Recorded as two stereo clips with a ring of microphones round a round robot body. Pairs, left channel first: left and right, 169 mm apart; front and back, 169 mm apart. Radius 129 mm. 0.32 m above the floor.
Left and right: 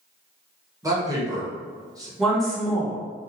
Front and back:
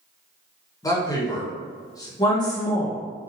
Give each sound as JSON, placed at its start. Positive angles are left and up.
{"t": 0.8, "sound": "a man speaking", "azimuth_deg": -45, "distance_m": 1.3}
{"t": 2.2, "sound": "a woman speaking", "azimuth_deg": 5, "distance_m": 1.5}